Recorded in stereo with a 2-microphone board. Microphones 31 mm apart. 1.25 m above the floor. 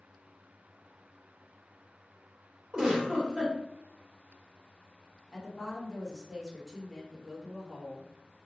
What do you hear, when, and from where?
2.7 s a giggle: 20° right (ahead or behind), 1.8 m
5.3 s a woman speaking: 10° right (ahead or behind), 1.3 m